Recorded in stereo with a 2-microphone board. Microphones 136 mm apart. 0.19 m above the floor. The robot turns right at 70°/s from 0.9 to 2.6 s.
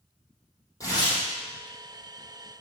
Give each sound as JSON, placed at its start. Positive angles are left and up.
{"t": 0.8, "sound": "tearing paper", "side_deg": 25, "distance_m": 4.5}